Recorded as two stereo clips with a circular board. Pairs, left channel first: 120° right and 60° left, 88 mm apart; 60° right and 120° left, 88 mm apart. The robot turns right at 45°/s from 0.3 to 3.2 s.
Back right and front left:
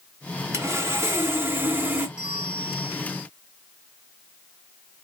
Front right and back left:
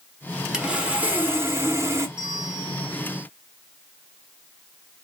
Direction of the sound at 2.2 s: 140° left.